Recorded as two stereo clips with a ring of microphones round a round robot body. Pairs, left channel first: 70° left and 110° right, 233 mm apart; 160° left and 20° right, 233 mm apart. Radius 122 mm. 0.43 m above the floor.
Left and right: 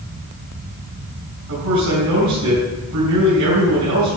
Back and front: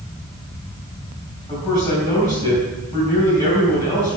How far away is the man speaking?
About 4.5 m.